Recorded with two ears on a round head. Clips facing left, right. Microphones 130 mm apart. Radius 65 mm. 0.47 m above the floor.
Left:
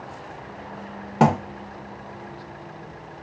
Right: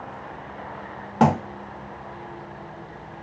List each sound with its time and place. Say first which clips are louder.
1.2 s a thud: even; 5° left (ahead or behind), 0.6 m